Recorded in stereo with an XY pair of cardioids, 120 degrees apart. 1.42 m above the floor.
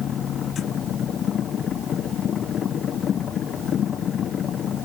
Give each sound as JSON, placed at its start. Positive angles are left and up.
{"t": 0.0, "sound": "a machine running", "azimuth_deg": 50}